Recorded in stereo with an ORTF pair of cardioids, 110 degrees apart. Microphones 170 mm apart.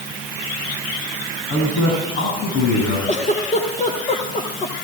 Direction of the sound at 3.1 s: 40° left.